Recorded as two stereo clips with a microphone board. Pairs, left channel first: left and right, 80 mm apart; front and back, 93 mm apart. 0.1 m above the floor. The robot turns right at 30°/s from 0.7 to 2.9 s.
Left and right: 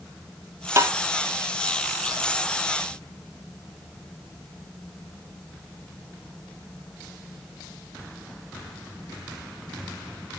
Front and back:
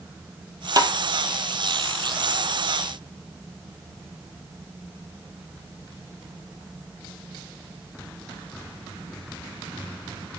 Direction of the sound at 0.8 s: 140° right.